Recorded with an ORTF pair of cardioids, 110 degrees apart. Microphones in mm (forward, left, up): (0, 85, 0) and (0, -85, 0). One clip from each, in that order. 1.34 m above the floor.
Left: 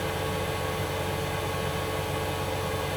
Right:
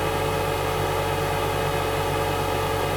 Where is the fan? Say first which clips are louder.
Right 6 dB; 45° right, 1.1 m.